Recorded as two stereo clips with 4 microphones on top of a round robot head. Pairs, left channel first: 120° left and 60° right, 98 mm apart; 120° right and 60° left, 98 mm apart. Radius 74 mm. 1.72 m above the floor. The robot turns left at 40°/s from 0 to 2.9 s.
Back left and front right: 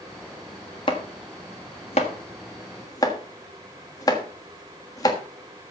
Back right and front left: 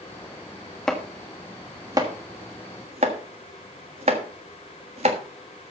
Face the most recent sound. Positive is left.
turn(degrees=75)